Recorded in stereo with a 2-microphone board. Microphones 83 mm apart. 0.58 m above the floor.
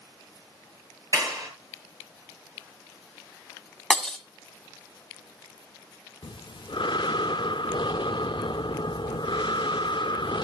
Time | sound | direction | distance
1.1 | a clap | 40° right (ahead or behind) | 10 m
3.9 | breaking glass | 5° left (ahead or behind) | 2.0 m
6.2 | breathing | 70° left (ahead or behind) | 0.5 m